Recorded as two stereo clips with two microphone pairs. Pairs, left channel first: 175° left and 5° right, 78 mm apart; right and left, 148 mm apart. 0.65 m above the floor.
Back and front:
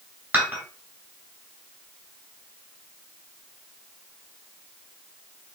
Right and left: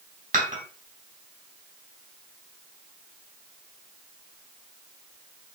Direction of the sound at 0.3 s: 65° left.